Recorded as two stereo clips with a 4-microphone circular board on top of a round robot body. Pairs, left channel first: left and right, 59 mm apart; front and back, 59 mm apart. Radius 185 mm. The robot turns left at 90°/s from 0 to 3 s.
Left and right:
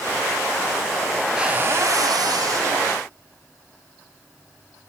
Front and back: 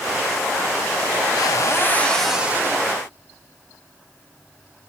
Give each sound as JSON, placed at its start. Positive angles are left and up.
{"t": 1.4, "sound": "a cupboard door", "azimuth_deg": -10, "distance_m": 2.5}